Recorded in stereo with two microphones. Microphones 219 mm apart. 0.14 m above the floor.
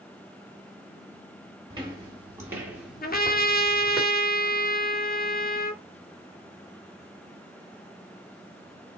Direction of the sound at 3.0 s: 45° left (ahead or behind).